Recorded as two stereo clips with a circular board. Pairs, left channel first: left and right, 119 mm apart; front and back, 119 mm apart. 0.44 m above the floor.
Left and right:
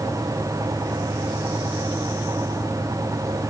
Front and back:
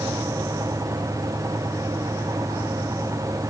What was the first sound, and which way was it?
Only background noise.